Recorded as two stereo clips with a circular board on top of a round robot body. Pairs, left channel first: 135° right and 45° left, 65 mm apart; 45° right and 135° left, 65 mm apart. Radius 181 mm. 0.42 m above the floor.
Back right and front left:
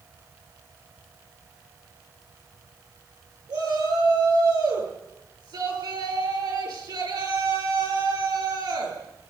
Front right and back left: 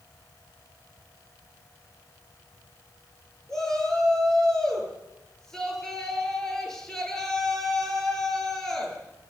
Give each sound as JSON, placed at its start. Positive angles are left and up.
{"t": 3.5, "sound": "a shout", "azimuth_deg": 40, "distance_m": 9.5}